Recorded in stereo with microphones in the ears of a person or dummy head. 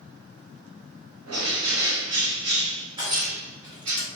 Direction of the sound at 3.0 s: 20° right (ahead or behind).